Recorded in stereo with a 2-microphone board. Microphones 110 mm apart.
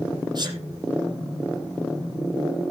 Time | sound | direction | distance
0.3 | a sneeze | 40° right (ahead or behind) | 6 m